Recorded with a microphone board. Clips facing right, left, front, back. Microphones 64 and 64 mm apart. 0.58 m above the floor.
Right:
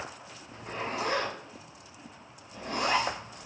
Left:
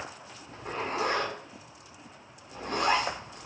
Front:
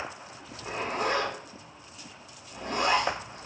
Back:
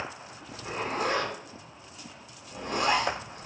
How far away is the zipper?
About 1.8 m.